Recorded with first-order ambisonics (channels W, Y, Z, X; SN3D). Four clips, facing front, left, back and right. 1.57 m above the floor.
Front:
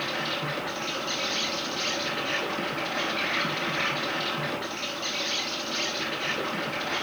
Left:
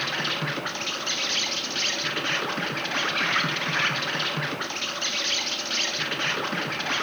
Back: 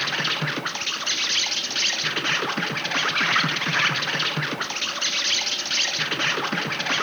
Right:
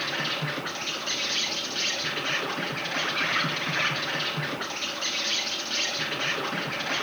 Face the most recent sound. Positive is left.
turn(degrees=165)